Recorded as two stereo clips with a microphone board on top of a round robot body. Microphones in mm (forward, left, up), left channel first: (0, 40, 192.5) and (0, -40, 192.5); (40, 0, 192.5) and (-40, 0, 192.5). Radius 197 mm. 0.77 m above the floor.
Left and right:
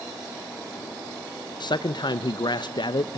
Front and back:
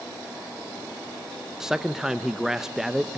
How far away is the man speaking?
About 0.7 m.